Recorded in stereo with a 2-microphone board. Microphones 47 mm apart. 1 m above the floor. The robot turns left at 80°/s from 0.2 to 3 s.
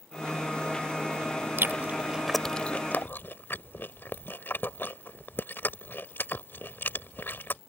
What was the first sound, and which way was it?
Chewing, 60° right (ahead or behind).